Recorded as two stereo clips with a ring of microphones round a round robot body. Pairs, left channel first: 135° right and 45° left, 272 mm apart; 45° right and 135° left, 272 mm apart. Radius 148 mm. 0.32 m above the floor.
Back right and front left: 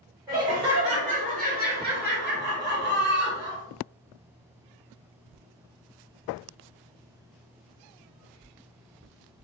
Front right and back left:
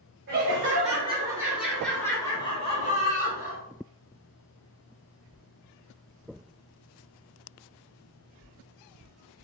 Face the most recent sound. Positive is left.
turn(degrees=5)